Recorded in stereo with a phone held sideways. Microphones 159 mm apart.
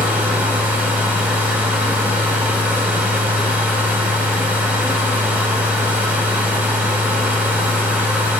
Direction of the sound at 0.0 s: 10° right (ahead or behind).